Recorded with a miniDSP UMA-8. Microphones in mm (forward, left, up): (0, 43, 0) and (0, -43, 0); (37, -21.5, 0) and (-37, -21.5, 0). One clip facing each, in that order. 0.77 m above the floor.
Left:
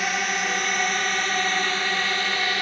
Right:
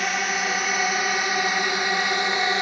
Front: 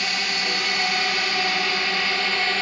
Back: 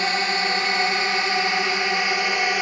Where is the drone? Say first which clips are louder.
Right 1 dB, back 4 dB; straight behind; by 2.6 s 130° right.